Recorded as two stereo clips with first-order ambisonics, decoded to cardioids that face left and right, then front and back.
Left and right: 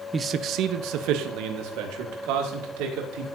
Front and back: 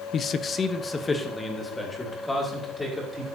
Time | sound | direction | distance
0.1 | a man speaking | 30° right | 0.5 m